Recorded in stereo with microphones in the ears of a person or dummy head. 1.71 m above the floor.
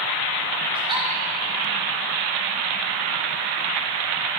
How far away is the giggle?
About 2.0 m.